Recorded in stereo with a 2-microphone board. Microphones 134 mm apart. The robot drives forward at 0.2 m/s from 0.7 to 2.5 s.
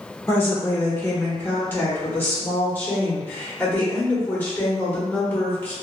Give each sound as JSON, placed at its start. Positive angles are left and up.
{"t": 0.3, "sound": "a woman speaking", "side_deg": 20, "distance_m": 1.0}